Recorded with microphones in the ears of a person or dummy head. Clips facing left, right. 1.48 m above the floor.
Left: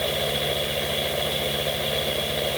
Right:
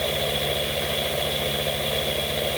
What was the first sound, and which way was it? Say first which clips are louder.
A fan: even; centre (ahead or behind).